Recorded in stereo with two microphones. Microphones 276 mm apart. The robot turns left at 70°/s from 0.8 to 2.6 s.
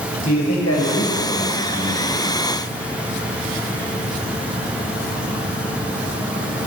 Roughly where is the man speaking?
Left.